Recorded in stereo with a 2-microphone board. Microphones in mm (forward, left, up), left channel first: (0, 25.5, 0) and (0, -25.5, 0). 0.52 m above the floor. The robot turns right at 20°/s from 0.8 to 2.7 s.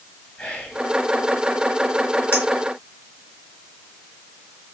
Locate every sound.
0.4 s whispering: 30° left (ahead or behind), 7 m
2.3 s a clink: 50° left (ahead or behind), 4.5 m